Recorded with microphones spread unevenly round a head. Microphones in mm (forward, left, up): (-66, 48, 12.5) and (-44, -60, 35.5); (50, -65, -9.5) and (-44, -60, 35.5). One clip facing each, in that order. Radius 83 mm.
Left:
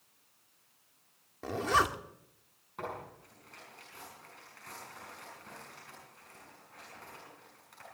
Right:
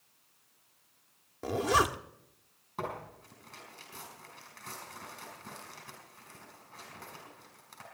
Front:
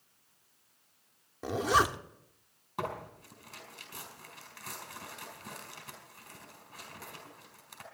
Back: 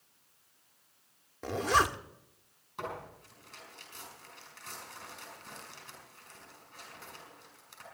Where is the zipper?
120° right, 0.7 m.